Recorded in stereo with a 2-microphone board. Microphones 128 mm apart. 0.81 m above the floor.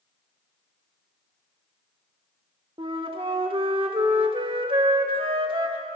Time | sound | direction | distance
2.8 | a flute | 45° right (ahead or behind) | 1.1 m